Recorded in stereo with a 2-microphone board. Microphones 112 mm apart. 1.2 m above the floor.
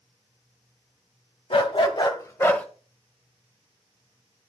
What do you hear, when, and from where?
1.5 s a dog barking: 60° left (ahead or behind), 1.6 m; by 2.6 s 15° left (ahead or behind), 1.4 m